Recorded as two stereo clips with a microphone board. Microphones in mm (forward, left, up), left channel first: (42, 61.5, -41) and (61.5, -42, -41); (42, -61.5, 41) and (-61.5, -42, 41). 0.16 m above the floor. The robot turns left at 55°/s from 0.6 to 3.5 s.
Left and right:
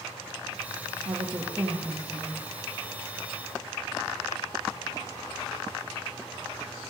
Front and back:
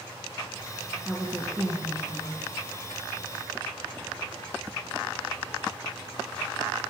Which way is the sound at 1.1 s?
105° right.